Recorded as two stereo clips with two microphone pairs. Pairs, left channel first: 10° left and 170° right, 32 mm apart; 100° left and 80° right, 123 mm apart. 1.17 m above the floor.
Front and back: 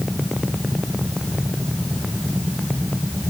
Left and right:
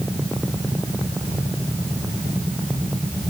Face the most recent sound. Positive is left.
No sound to turn to.